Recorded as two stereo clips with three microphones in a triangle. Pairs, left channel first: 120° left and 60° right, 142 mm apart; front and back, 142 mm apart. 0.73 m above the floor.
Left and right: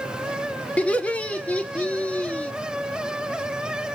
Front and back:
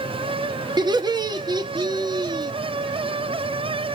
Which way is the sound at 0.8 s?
170° right.